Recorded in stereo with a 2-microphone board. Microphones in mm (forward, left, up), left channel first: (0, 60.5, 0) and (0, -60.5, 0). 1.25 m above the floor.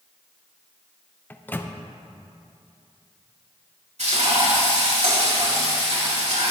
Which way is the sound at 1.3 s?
15° left (ahead or behind).